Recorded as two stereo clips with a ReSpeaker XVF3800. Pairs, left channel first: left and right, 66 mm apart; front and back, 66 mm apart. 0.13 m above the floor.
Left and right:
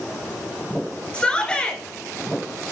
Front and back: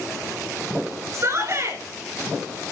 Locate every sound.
1.1 s a shout: 160° left, 1.9 m